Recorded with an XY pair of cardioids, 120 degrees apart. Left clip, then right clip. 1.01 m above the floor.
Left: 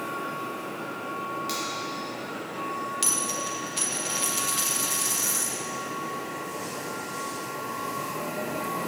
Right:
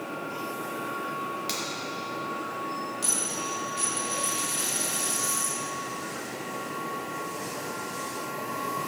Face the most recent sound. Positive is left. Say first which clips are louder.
# left 3 dB
turn(degrees=60)